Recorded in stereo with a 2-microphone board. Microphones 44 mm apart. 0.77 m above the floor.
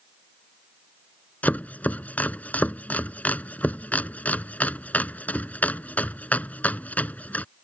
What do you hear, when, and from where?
1.4 s chopping: 35° left (ahead or behind)